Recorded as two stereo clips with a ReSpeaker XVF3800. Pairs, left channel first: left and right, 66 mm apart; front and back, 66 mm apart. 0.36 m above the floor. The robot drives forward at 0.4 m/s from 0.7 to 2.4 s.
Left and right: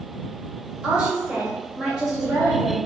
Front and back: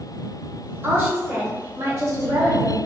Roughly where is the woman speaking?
Behind right.